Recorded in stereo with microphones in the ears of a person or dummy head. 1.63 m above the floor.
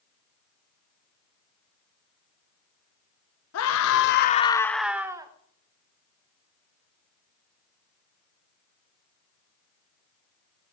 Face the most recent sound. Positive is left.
turn(degrees=-20)  # may be behind; listen again after turning